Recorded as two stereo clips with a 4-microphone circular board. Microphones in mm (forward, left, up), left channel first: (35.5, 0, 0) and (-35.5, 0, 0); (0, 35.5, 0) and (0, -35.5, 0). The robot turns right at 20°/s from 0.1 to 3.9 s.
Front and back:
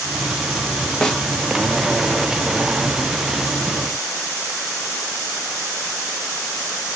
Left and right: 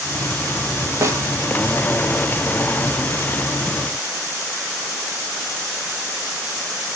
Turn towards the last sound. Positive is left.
turn(degrees=-20)